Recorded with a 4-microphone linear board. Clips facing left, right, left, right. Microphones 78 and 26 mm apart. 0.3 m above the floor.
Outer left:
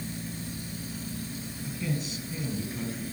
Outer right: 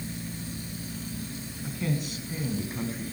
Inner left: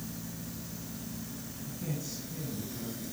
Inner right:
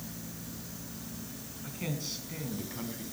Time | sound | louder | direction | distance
1.6 | a man speaking | outer right 2 dB, inner right 2 dB | 55° right (ahead or behind) | 3 m